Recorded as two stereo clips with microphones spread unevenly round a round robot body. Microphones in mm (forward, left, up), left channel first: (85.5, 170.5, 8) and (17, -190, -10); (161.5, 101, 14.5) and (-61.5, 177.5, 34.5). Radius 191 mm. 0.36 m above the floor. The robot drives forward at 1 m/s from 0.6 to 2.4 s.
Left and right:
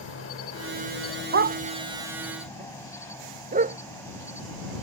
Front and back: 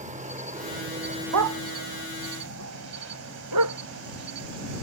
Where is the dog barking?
160° right; by 3.8 s 175° right.